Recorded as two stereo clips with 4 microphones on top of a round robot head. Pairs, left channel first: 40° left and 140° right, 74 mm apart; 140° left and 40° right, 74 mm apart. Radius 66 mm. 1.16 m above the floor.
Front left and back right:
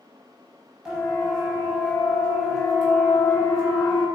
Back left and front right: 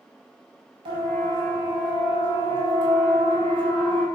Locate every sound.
0.8 s a siren: 55° right, 6.5 m; by 4.0 s 45° right, 8.5 m